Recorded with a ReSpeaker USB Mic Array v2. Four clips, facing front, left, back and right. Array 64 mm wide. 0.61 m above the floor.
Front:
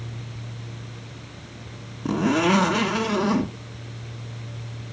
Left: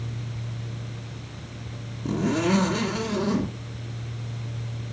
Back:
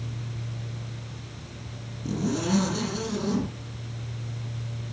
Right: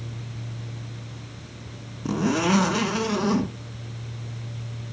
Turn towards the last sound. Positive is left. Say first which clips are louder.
# right 1 dB, front 7 dB
turn(degrees=-25)